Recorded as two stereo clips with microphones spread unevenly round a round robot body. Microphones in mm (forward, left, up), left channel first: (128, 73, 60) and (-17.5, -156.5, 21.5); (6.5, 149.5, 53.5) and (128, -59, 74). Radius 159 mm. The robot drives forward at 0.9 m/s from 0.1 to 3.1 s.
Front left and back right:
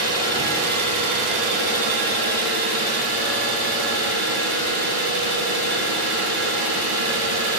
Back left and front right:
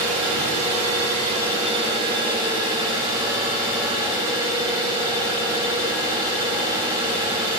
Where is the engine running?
85° right, 2.5 m; by 7.6 s 135° right, 3.5 m.